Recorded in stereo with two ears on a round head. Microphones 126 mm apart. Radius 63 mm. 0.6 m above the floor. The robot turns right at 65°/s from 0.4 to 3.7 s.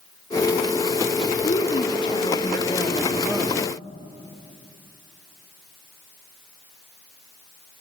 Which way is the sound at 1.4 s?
75° left.